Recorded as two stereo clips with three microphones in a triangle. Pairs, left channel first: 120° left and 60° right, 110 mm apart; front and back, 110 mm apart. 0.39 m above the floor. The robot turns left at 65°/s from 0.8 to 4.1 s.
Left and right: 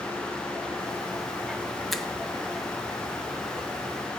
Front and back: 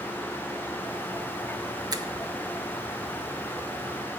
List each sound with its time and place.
1.9 s a finger snap: 150° right, 0.9 m; by 2.1 s 160° right, 0.9 m